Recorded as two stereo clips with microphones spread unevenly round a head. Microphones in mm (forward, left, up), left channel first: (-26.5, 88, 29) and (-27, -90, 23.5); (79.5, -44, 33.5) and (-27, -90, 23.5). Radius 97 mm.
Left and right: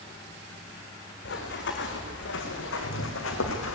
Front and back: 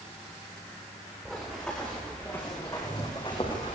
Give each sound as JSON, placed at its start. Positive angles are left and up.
{"t": 1.2, "sound": "running footsteps", "azimuth_deg": 110, "distance_m": 5.5}